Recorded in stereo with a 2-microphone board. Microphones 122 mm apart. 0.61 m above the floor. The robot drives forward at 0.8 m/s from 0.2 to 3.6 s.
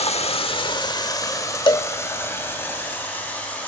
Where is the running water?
55° left (ahead or behind), 0.9 m; by 3.7 s 15° left (ahead or behind), 3.5 m.